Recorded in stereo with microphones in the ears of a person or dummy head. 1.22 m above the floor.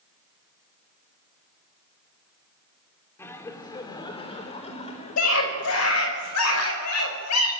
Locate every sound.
3.2 s laughter: 15° left (ahead or behind), 3.5 m; by 6.2 s 45° left (ahead or behind), 5.5 m
5.2 s a scream: 85° left, 5.5 m